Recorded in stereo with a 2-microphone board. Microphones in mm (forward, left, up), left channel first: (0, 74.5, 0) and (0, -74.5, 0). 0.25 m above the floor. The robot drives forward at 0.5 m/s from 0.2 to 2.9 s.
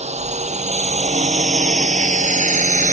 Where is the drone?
55° right (ahead or behind); by 2.9 s 65° right (ahead or behind).